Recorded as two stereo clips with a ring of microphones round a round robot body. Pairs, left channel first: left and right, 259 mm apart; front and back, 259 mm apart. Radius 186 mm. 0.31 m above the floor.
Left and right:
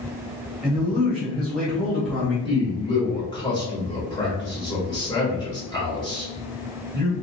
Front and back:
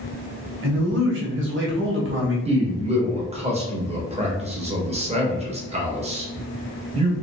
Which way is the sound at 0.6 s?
Straight behind.